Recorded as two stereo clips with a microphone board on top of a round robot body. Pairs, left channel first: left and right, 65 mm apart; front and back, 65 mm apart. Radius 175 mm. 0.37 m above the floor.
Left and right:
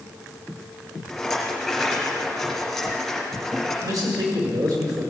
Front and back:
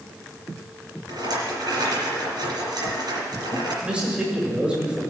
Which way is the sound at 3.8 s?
105° right.